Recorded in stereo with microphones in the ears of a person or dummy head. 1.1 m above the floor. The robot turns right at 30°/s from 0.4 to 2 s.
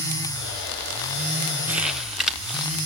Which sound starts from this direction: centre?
Crumpling, at 1.7 s.